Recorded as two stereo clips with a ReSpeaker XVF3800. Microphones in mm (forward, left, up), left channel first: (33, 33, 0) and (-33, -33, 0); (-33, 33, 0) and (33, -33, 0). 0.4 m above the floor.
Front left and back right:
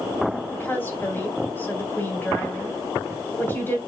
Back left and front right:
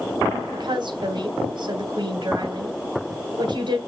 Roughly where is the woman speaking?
Ahead.